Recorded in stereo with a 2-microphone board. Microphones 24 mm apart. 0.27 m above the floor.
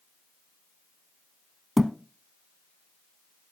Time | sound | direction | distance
1.8 | a thud | 5° right (ahead or behind) | 0.8 m